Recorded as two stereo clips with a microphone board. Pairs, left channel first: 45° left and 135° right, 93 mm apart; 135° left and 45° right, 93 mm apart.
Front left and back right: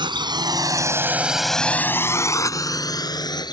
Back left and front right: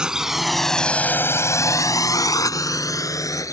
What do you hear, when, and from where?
0.0 s a drone: 125° right; by 3.5 s 85° left